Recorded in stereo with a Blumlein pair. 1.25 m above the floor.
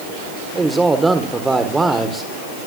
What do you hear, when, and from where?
0.6 s a man speaking: 10° right, 4 m